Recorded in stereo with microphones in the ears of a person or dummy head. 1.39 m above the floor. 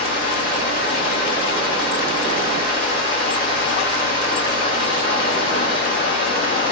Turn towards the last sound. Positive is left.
turn(degrees=50)  # may be behind; listen again after turning